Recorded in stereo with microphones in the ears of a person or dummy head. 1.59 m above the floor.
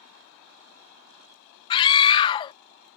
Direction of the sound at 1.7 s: 30° left (ahead or behind).